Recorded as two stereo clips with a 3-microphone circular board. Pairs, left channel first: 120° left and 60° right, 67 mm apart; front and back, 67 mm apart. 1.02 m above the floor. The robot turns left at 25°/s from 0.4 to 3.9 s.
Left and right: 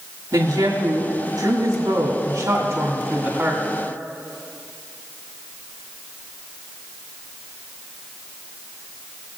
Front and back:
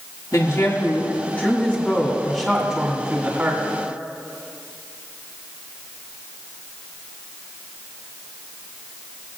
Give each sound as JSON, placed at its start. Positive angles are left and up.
{"t": 0.3, "sound": "a woman speaking", "azimuth_deg": -45, "distance_m": 2.0}